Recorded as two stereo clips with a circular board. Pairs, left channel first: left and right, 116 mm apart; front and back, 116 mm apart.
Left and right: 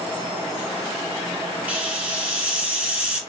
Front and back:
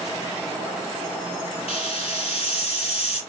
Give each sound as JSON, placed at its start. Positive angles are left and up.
{"t": 1.7, "sound": "a hiss", "azimuth_deg": -15, "distance_m": 1.5}